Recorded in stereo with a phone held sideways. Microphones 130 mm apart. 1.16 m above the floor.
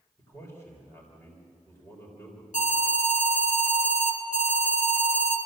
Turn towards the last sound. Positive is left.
turn(degrees=75)  # may be behind; listen again after turning